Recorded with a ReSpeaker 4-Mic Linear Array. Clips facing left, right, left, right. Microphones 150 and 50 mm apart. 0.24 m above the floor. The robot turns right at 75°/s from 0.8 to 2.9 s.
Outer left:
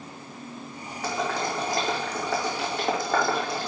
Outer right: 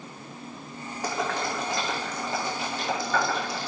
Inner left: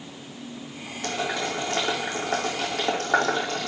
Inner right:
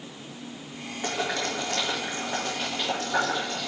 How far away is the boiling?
About 2.5 m.